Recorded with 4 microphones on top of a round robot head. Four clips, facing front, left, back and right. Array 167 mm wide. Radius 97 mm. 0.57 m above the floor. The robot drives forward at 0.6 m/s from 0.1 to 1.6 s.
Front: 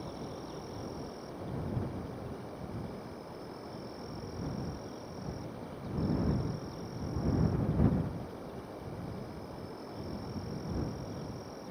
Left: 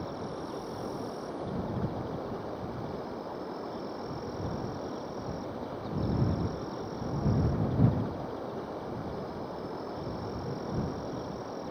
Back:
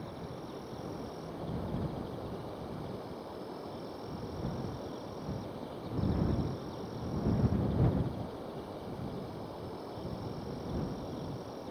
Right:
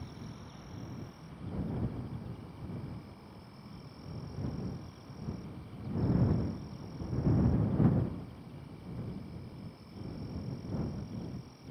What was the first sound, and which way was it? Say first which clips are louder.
An insect: left 11 dB, front 1 dB; 85° left.